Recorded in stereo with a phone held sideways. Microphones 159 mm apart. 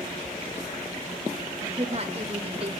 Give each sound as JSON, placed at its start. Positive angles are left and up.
{"t": 1.6, "sound": "a woman speaking", "side_deg": -40, "distance_m": 1.9}